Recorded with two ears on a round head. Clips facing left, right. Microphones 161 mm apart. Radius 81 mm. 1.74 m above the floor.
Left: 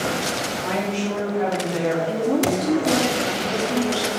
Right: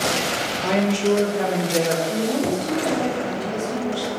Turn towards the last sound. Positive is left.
turn(degrees=70)  # may be behind; listen again after turning